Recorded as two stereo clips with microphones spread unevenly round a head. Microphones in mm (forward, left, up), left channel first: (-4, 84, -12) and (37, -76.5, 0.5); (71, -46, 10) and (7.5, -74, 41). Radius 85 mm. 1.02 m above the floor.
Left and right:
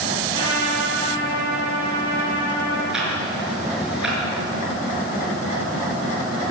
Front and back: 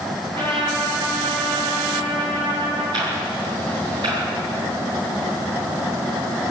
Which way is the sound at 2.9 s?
160° right.